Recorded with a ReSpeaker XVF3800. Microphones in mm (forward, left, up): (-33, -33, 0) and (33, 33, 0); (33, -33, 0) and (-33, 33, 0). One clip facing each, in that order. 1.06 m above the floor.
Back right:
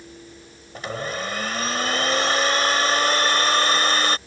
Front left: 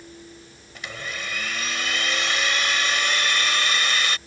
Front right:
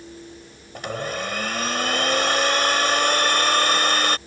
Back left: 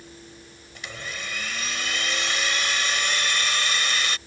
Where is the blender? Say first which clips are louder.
Back right 6 dB, front right 10 dB; 85° right.